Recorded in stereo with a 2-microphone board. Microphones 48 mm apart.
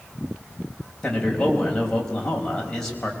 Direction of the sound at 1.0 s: 15° left (ahead or behind).